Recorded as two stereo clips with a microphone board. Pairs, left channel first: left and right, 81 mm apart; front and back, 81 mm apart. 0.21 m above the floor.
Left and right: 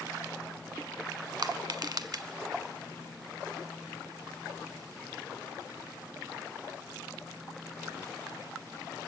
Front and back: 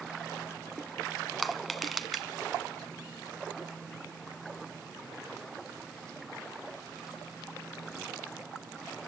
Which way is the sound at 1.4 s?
90° right.